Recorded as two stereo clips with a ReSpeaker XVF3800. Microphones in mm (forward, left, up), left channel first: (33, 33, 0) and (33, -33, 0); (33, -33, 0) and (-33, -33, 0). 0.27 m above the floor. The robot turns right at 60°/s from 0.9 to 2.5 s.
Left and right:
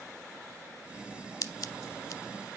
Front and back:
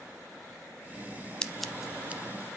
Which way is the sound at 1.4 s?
75° left.